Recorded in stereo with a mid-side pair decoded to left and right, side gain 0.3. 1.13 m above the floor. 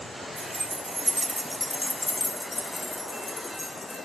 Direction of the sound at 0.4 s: 50° right.